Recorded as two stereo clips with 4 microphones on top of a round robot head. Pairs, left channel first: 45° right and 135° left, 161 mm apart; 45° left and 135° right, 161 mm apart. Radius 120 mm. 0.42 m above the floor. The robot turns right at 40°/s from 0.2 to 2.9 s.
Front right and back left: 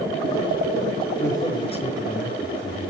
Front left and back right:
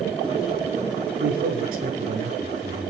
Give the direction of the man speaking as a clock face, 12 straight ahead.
4 o'clock.